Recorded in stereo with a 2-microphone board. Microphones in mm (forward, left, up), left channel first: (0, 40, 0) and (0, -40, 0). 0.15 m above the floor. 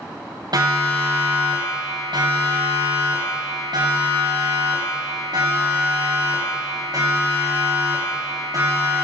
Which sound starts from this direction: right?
A siren, at 0.5 s.